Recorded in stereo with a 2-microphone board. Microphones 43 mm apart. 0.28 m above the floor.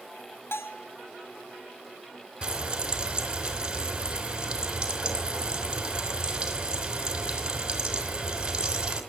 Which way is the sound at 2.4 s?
20° right (ahead or behind).